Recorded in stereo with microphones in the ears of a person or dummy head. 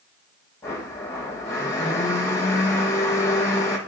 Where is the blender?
10° left (ahead or behind), 1.1 m.